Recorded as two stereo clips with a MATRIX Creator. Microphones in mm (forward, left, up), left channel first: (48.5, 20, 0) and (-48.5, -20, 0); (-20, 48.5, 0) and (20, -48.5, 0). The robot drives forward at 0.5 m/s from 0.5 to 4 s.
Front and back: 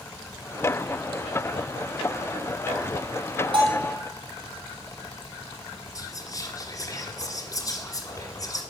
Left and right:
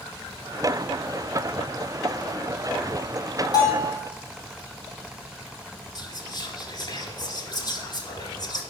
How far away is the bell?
About 2.5 m.